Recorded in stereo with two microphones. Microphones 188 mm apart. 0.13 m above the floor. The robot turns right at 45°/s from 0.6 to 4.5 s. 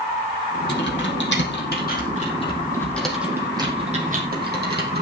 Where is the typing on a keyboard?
65° left (ahead or behind), 4.5 m; by 5.0 s 60° right (ahead or behind), 4.5 m.